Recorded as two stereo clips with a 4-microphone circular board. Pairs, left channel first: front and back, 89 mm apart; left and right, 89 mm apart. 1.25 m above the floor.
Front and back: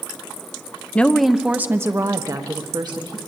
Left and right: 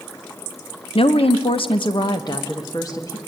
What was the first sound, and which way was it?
A woman speaking, 75° left.